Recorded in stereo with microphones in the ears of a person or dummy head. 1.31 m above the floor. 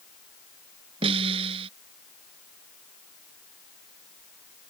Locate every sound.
1.0 s a snare drum: 30° right (ahead or behind)